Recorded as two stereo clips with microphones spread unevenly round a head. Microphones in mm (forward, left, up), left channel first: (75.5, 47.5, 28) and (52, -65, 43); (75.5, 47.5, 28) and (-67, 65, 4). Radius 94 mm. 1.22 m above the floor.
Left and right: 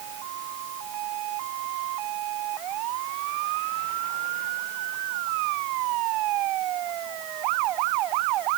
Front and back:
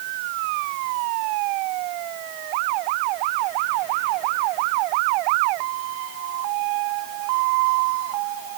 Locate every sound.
Only background noise.